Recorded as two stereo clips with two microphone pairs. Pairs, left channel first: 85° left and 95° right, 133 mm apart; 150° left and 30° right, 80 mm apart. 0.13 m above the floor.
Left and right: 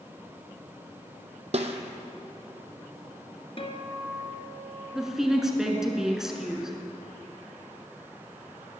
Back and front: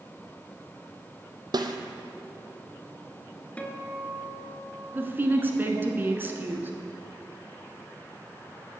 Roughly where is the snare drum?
Ahead right.